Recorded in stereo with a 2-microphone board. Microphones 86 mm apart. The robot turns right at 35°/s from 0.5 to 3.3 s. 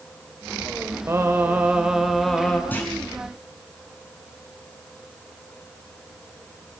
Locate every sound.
1.1 s singing: 40° right, 1.8 m; by 2.6 s 15° left, 1.8 m
2.7 s a clunk: 20° left (ahead or behind), 5 m; by 2.9 s 15° left (ahead or behind), 5 m